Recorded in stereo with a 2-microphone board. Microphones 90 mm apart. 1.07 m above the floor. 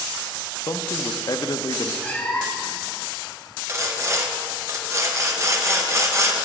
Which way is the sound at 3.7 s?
30° right (ahead or behind).